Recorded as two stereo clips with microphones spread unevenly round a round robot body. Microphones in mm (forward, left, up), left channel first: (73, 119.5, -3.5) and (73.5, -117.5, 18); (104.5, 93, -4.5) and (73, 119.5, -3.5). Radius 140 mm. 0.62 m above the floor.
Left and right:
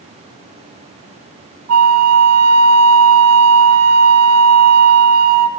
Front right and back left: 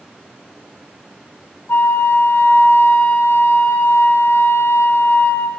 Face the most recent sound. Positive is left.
turn(degrees=-85)